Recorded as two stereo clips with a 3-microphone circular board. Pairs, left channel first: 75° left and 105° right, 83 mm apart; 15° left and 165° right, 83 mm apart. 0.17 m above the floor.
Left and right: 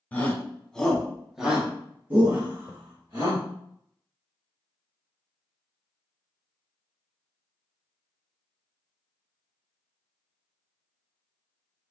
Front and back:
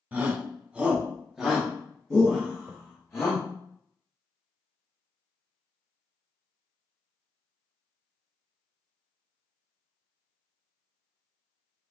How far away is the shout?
About 1.3 m.